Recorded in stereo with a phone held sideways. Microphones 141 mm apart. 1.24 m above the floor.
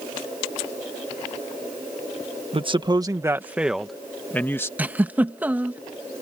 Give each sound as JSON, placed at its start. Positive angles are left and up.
{"t": 2.5, "sound": "a man speaking", "side_deg": -45}
{"t": 4.8, "sound": "a giggle", "side_deg": -10}